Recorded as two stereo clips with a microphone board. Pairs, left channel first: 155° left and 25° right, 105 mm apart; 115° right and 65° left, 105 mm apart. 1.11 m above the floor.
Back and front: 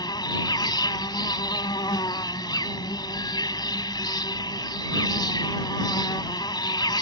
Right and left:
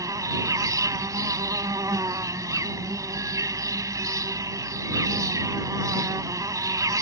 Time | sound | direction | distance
0.0 | an insect | 120° left | ?